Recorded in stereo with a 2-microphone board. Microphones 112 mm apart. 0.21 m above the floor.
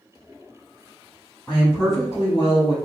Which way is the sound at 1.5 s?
10° left (ahead or behind).